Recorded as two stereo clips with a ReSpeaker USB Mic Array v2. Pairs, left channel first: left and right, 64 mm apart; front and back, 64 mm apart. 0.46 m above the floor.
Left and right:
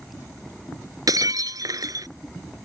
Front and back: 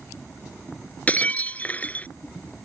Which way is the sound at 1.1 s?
65° right.